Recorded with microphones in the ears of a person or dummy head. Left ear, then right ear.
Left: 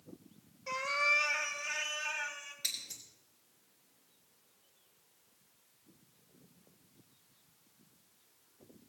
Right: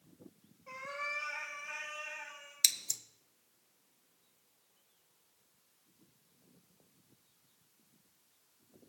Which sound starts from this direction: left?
A cat meowing, at 0.7 s.